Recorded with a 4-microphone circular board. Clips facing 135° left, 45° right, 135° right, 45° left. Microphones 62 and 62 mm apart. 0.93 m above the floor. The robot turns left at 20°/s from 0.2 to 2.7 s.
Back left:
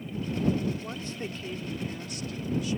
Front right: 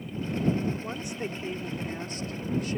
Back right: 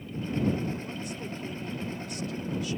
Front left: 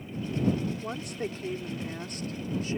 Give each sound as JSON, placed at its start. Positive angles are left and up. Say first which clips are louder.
{"t": 0.8, "sound": "a woman speaking", "louder": "front right 2 dB, front left 3 dB", "azimuth_deg": 35}